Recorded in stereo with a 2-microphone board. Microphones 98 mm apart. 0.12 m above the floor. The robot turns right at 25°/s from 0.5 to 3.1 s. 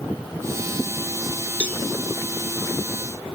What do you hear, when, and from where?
1.6 s a cowbell: 15° left (ahead or behind), 1.1 m; by 1.8 s 10° left (ahead or behind), 1.1 m